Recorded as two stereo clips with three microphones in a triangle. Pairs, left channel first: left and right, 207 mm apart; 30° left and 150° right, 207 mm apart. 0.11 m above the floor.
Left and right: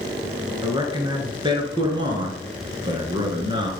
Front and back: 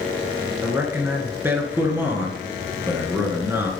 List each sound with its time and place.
0.6 s a man speaking: 90° right, 1.7 m